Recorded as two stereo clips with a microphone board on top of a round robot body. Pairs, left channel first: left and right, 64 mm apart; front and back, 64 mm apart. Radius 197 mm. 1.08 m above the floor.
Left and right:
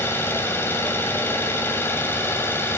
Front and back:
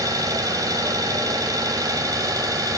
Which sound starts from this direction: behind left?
An engine running, at 0.0 s.